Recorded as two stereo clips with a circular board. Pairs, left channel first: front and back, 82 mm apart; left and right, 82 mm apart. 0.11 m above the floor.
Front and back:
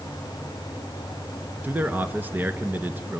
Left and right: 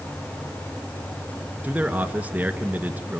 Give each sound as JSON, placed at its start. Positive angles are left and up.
{"t": 1.6, "sound": "a man speaking", "azimuth_deg": -140, "distance_m": 1.4}